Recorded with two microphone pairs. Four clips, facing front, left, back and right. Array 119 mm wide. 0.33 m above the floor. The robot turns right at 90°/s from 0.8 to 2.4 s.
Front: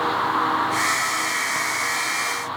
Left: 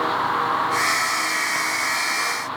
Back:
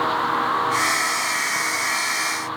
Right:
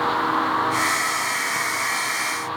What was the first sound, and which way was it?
Only background noise.